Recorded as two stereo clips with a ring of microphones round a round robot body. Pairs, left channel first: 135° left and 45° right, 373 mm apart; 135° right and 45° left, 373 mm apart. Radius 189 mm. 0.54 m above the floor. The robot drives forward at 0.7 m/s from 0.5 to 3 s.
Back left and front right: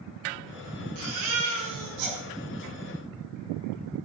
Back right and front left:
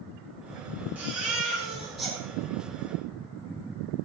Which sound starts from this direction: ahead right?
A baby crying, at 0.9 s.